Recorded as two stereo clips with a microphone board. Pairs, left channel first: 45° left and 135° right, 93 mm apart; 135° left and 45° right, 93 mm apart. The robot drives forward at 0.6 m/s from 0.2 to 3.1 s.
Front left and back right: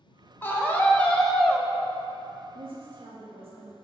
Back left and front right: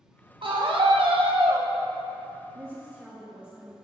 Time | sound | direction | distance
0.4 | a scream | 20° right | 1.2 m
2.5 | a woman speaking | 105° right | 0.9 m